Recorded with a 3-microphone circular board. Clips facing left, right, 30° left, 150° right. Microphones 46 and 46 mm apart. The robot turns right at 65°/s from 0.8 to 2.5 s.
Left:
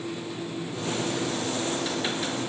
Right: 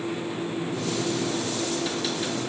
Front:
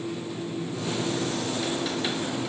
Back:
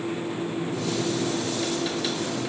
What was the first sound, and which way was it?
Only background noise.